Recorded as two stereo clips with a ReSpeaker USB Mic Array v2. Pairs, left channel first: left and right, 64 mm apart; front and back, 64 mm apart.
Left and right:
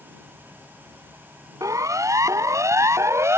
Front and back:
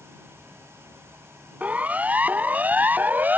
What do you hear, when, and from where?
1.6 s a siren: 115° right; by 3.4 s 125° right